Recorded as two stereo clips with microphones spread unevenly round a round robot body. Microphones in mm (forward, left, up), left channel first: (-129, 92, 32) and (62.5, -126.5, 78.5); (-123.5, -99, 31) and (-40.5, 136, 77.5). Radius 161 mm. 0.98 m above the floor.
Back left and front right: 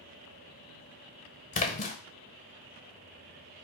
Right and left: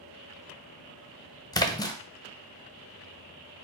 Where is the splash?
175° right, 0.8 m.